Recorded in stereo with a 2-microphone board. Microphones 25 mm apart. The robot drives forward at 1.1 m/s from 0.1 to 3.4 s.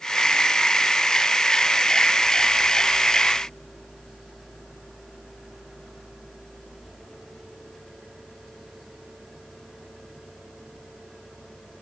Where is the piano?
No piano in this recording.